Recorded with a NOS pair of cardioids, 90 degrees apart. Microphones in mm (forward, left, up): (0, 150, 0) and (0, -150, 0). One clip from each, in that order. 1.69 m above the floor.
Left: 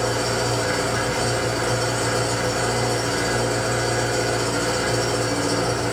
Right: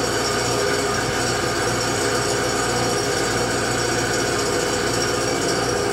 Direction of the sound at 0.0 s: 45° right.